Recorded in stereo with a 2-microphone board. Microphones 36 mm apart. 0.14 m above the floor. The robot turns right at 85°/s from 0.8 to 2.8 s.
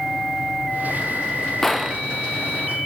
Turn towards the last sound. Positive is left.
turn(degrees=-85)